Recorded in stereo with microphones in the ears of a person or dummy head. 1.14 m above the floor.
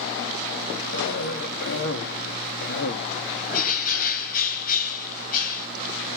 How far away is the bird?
About 2 m.